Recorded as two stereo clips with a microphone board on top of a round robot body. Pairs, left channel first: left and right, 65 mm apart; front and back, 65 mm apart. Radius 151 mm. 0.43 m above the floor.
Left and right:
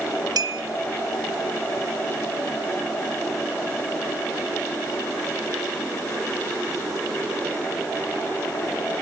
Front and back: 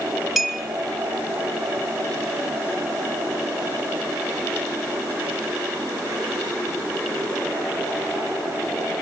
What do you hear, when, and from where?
0.4 s a clink: 90° right, 1.6 m